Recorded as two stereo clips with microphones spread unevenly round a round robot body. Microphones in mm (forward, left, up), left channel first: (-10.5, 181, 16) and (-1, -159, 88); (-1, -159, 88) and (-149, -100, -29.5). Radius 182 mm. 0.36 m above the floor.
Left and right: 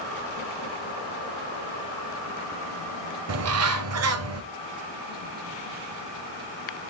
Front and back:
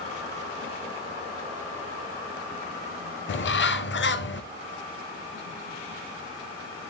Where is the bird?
35° right, 0.6 m.